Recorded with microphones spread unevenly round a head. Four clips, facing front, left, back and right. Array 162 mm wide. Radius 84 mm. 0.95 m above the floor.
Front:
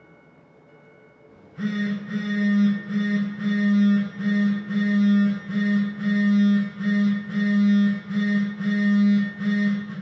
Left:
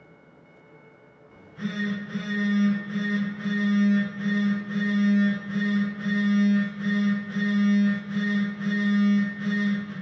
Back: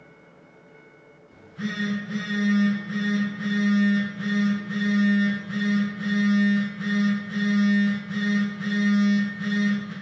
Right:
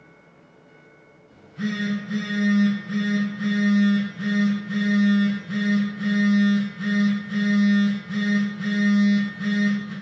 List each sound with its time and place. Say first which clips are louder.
1.3 s a phone buzzing: right 5 dB, front 4 dB; 5° right, 2.5 m